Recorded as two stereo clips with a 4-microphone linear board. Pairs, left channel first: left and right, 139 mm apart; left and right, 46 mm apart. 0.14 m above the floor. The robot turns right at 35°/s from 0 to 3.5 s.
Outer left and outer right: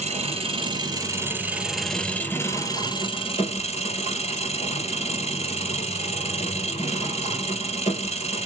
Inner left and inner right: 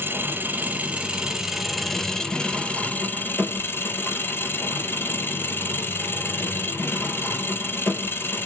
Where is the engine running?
65° right, 1.0 m; by 8.5 s 60° left, 1.0 m.